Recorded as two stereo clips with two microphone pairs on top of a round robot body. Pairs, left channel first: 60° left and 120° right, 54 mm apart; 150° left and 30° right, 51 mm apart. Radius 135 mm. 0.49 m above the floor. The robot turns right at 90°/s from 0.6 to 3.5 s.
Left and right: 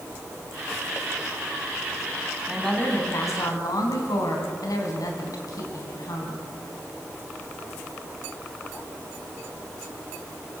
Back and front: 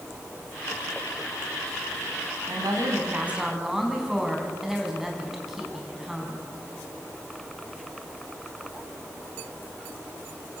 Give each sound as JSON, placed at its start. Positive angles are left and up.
{"t": 2.5, "sound": "a woman speaking", "azimuth_deg": -40, "distance_m": 5.0}